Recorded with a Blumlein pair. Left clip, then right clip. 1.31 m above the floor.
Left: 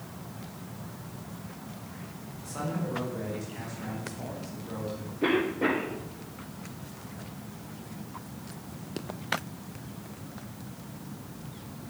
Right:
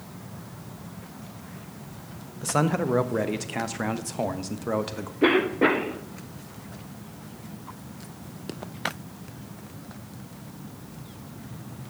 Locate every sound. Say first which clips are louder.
2.4 s a man speaking: right 10 dB; 40° right, 1.0 m
5.2 s a cough: right 6 dB; 20° right, 1.2 m